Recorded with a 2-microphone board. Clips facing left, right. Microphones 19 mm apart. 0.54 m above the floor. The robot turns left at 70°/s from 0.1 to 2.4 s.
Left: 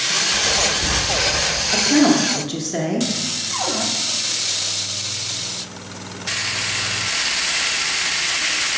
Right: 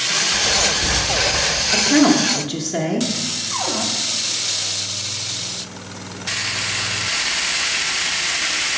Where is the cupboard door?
15° left (ahead or behind), 1.0 m.